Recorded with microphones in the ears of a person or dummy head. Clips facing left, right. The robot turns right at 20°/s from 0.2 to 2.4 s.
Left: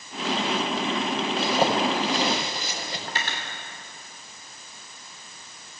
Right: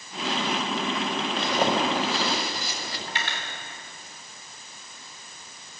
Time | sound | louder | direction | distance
1.4 | a zipper | left 1 dB | 5° left (ahead or behind) | 5.5 m
3.1 | cutlery clinking | left 1 dB | 40° left (ahead or behind) | 2.5 m